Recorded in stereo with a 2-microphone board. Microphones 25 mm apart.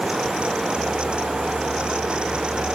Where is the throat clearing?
No throat clearing in this recording.